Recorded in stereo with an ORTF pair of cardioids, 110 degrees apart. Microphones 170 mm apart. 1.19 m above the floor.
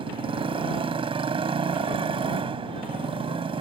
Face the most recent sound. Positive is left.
turn(degrees=-35)